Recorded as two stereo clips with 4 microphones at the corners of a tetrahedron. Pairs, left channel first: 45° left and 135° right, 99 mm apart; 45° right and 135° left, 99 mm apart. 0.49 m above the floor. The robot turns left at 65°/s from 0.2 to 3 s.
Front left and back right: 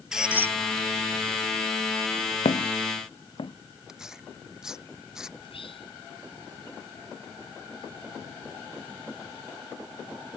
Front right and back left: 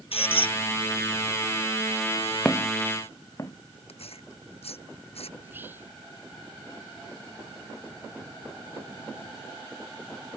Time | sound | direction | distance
0.1 | a squeak | 50° right | ?
2.5 | footsteps | 40° left | ?
3.9 | tearing paper | 50° right | ?
5.4 | whispering | 65° left | ?